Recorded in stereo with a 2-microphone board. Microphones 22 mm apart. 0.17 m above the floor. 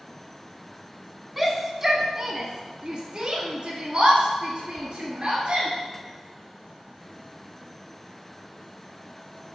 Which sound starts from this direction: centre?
A shout, at 1.4 s.